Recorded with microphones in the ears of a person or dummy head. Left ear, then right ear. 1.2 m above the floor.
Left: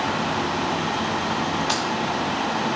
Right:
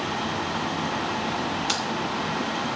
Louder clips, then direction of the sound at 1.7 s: Left 1 dB; 10° right (ahead or behind).